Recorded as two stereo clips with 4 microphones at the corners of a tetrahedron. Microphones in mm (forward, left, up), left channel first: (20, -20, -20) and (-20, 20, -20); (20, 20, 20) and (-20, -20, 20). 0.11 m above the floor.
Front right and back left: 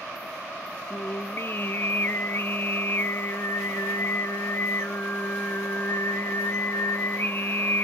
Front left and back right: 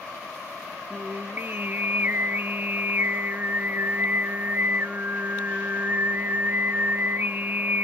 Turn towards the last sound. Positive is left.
turn(degrees=-85)